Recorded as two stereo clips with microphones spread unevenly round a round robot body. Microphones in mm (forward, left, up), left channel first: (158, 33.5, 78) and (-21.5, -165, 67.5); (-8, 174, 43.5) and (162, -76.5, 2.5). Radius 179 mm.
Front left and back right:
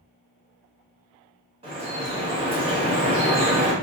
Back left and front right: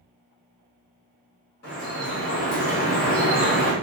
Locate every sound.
1.6 s dripping: 175° left, 1.0 m